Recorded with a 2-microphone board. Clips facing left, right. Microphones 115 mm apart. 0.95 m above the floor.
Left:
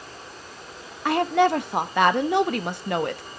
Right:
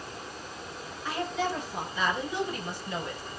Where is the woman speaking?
65° left (ahead or behind), 0.9 m.